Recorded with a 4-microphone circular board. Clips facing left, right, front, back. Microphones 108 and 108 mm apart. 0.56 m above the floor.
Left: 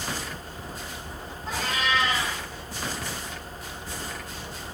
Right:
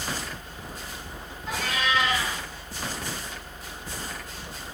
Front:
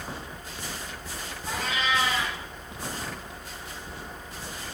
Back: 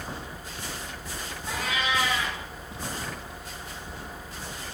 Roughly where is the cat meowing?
Ahead left.